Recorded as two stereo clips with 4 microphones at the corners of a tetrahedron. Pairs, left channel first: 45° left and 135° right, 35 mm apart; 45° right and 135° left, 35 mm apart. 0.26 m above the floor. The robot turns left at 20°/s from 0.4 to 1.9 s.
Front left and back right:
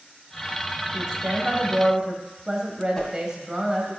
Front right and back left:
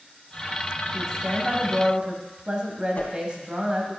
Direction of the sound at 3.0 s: 30° right.